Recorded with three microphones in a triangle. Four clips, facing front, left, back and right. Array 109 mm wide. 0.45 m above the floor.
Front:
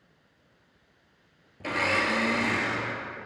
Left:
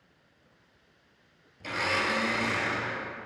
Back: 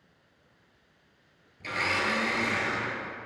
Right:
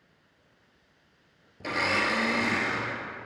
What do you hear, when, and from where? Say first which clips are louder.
1.6 s a blender: right 2 dB, front 3 dB; 50° right, 1.3 m